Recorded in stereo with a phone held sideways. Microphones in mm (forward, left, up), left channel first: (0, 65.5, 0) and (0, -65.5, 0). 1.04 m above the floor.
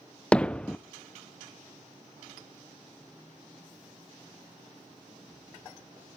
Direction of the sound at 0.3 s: 5° left (ahead or behind).